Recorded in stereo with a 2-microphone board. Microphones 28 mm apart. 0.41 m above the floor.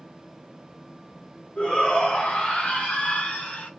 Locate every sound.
1.6 s a shout: 40° left (ahead or behind), 5.5 m; by 3.7 s 55° left (ahead or behind), 4.5 m